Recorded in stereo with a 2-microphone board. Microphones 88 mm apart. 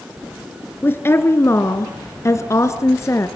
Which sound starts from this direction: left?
A woman speaking, at 0.8 s.